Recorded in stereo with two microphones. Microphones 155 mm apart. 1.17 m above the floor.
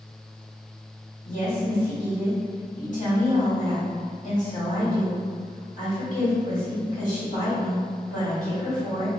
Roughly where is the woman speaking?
Left.